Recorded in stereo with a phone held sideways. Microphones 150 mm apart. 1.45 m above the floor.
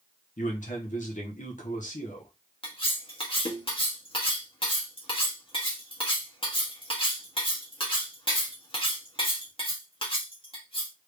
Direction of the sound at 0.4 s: 60° left (ahead or behind).